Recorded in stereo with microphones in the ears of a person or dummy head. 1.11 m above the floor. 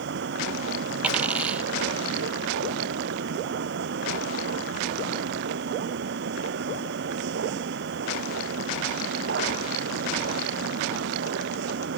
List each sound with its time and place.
0.0 s a machine running: 65° right (ahead or behind)
1.0 s a dropped coin: 5° right (ahead or behind)